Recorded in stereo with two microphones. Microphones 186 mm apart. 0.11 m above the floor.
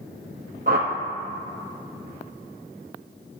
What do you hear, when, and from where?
0.7 s a whoosh: 50° right (ahead or behind), 1.0 m